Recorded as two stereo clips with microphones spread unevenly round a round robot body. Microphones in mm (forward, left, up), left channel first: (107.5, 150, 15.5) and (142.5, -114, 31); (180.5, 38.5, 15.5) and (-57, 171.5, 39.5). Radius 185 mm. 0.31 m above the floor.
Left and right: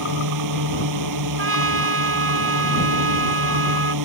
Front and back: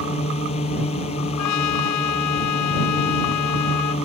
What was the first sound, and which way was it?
A drone, 105° right.